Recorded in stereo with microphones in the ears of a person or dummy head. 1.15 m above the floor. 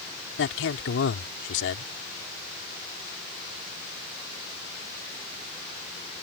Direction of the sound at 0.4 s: 85° left.